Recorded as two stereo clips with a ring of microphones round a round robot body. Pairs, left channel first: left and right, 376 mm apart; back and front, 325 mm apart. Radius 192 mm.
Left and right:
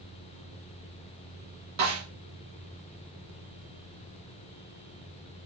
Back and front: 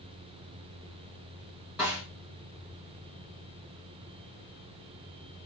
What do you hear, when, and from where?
1.8 s a snare drum: 85° right, 6 m